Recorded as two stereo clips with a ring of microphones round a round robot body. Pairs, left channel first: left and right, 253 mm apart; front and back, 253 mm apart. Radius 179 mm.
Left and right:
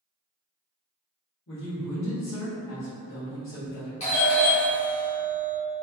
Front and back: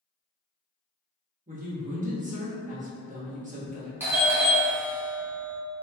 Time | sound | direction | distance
1.5 | a man speaking | 125° left | 1.1 m
4.0 | a doorbell | 110° left | 1.1 m